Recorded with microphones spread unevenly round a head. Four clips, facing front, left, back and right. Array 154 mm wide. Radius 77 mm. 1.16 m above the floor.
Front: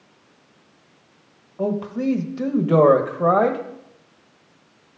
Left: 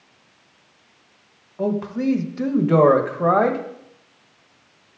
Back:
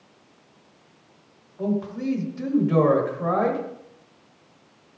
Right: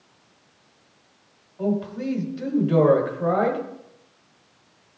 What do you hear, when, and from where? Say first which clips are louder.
1.6 s a man speaking: left 3 dB, front 3 dB; 35° left, 1.4 m